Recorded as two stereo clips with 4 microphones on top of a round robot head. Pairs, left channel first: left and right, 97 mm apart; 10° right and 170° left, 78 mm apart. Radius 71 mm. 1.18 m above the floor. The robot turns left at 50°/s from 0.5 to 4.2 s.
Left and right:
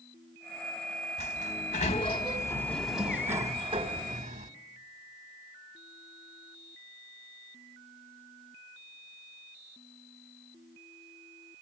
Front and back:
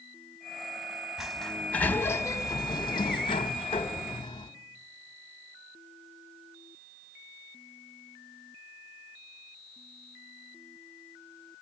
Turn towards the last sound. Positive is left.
turn(degrees=-65)